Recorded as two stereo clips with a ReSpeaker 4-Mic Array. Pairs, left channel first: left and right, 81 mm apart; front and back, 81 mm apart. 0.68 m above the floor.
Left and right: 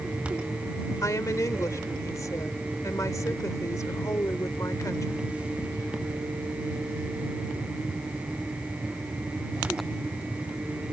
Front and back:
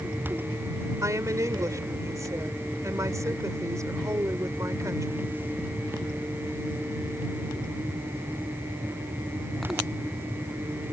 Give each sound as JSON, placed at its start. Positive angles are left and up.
{"t": 1.0, "sound": "a woman speaking", "azimuth_deg": 135}